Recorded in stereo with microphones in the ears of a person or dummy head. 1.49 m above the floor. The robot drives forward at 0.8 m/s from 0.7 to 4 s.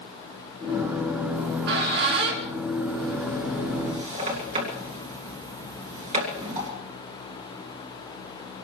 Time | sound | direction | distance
1.3 | a squeak | 50° right (ahead or behind) | 2 m